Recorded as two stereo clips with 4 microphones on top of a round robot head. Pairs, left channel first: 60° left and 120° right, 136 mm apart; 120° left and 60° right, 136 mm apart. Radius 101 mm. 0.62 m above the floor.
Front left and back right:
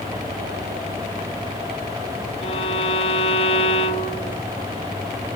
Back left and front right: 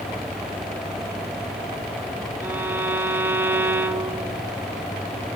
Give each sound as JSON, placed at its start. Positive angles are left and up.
{"t": 2.4, "sound": "a violin", "azimuth_deg": 15, "distance_m": 0.6}